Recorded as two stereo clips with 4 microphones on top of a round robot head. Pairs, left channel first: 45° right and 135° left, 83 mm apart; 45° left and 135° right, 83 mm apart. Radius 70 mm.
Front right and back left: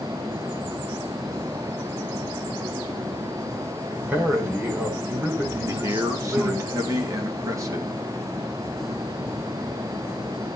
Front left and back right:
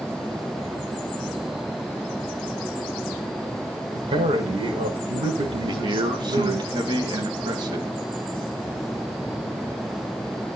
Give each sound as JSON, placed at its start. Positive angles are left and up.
{"t": 3.9, "sound": "a man speaking", "azimuth_deg": -155, "distance_m": 5.5}
{"t": 5.7, "sound": "a man speaking", "azimuth_deg": -170, "distance_m": 3.5}